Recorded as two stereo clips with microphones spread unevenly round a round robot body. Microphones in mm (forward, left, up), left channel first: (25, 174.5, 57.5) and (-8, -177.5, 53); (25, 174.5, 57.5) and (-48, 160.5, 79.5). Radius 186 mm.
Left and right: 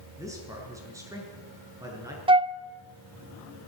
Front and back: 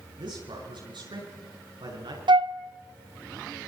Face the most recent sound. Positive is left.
turn(degrees=-170)